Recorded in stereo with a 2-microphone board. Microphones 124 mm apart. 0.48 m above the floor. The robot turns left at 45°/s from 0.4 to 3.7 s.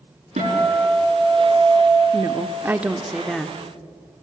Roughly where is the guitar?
Right.